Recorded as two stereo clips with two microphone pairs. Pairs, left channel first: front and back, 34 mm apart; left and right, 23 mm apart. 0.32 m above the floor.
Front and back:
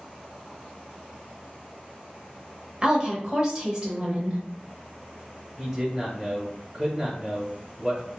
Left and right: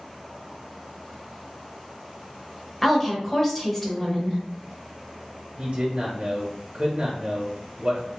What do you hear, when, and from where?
2.8 s a woman speaking: 145° left, 0.9 m
5.6 s a man speaking: 100° right, 1.2 m